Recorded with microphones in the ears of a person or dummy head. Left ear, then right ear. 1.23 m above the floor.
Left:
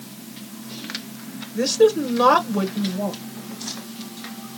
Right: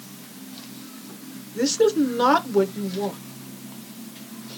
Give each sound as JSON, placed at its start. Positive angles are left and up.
{"t": 1.6, "sound": "a woman speaking", "side_deg": -10, "distance_m": 1.0}